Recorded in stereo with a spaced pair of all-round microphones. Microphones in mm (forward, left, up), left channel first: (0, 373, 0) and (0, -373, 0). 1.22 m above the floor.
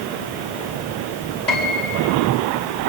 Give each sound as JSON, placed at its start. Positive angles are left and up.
{"t": 1.5, "sound": "a piano", "side_deg": 70, "distance_m": 6.0}